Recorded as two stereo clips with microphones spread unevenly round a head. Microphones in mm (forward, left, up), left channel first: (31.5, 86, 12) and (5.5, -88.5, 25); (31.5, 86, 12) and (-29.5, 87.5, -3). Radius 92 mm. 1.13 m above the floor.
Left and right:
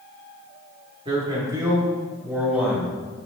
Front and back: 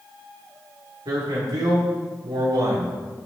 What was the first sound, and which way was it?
A man speaking, 165° right.